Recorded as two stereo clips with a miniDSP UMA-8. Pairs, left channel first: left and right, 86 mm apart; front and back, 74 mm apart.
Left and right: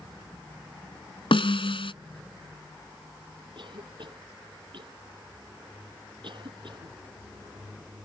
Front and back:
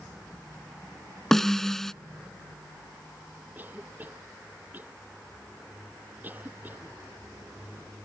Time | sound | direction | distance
1.3 | a snare drum | 85° left | ?
3.5 | a cough | 115° right | ?